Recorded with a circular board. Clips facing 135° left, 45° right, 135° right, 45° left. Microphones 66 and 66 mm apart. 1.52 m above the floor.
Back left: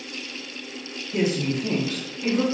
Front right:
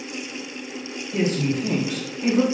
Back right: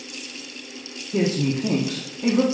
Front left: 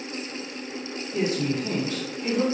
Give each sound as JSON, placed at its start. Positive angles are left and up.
{"t": 1.1, "sound": "a woman speaking", "azimuth_deg": -145, "distance_m": 1.4}